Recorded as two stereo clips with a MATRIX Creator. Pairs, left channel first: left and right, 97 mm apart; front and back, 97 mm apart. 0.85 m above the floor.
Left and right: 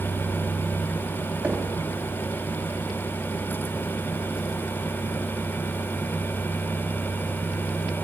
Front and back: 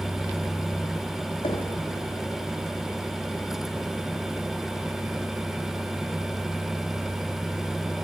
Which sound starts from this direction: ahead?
Knocking, at 1.4 s.